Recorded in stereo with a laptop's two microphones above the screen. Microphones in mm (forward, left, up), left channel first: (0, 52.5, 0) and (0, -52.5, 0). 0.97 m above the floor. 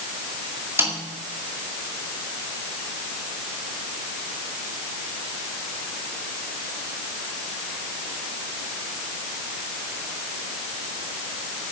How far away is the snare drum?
About 2 m.